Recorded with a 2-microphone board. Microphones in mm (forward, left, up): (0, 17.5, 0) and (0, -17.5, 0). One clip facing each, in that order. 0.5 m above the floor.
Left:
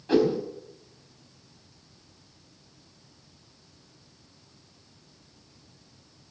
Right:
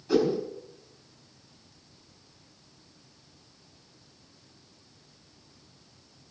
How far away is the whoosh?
About 3.5 m.